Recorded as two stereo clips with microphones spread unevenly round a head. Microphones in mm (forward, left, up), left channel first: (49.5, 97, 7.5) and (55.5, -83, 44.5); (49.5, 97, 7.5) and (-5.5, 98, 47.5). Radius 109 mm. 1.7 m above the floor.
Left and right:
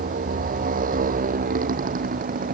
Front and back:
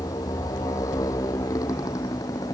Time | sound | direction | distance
0.0 | a motorcycle | 45° right | ?